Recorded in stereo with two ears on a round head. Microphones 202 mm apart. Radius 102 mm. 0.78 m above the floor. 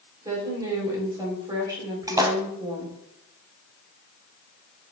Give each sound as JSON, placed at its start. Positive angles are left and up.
{"t": 0.2, "sound": "a woman speaking", "side_deg": -15, "distance_m": 3.5}
{"t": 2.1, "sound": "a splash", "side_deg": -15, "distance_m": 1.2}